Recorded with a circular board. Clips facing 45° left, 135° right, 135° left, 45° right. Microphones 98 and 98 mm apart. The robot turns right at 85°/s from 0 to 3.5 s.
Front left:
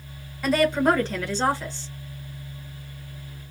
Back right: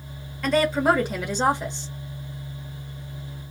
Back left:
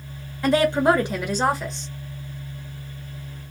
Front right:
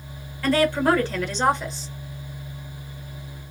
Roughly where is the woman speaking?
Behind left.